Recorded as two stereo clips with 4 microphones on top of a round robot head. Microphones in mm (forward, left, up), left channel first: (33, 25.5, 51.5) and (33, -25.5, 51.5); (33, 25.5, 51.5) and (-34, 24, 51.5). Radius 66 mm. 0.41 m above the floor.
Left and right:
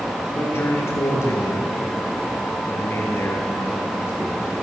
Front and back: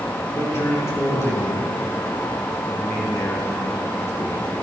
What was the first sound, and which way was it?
A man speaking, 50° left.